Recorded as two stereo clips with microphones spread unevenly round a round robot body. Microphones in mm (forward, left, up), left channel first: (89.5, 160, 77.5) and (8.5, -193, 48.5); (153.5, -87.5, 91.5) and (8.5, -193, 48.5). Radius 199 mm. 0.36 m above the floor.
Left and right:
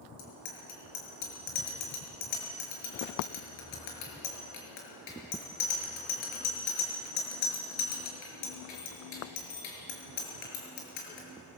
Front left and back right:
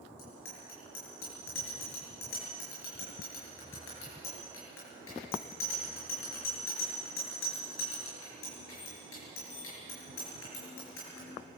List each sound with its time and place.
0.2 s a bicycle bell: 65° left, 6 m